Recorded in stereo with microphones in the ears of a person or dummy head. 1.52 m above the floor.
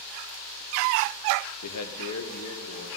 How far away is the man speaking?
About 0.8 m.